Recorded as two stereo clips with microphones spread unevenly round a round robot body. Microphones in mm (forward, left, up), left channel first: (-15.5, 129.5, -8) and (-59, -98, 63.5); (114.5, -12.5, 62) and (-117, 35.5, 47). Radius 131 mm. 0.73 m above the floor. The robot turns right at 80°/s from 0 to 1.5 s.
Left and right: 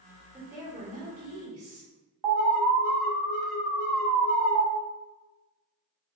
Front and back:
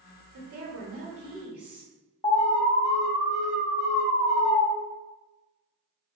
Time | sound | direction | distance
0.3 | a woman speaking | 155° left | 1.5 m
2.2 | an alarm | 85° right | 0.7 m